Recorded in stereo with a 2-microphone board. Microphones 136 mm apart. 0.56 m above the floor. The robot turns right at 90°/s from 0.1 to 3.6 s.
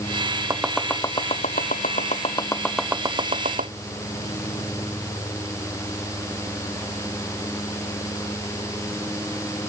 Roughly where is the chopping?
Right.